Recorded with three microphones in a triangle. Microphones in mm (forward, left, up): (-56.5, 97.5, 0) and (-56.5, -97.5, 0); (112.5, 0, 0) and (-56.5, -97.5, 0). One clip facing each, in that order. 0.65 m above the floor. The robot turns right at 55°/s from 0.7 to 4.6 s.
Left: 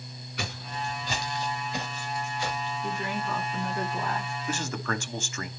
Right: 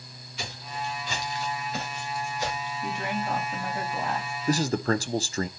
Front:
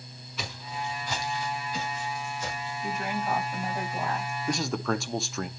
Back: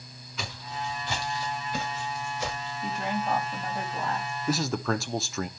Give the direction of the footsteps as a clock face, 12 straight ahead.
8 o'clock.